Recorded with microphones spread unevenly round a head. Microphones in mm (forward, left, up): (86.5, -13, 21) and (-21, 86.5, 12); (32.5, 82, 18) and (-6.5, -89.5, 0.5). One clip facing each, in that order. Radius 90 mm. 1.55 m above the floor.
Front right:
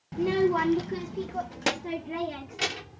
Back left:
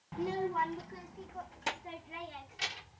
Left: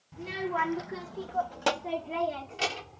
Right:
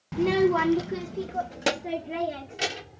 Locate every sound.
0.1 s a child speaking: 100° right; by 3.0 s 25° right